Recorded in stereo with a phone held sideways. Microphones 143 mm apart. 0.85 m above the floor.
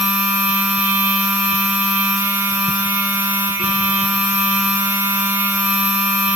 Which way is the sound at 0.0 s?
10° right (ahead or behind).